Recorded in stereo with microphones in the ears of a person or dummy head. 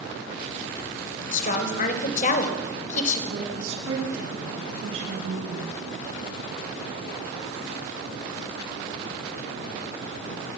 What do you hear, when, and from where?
1.3 s a woman speaking: 50° left (ahead or behind), 5 m
3.3 s a woman speaking: 85° right, 8.5 m